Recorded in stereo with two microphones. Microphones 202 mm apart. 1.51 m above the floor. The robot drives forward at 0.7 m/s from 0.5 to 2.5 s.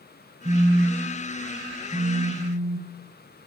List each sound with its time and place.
0.5 s a phone buzzing: 30° right (ahead or behind), 1.1 m; by 3.1 s 15° right (ahead or behind), 2.5 m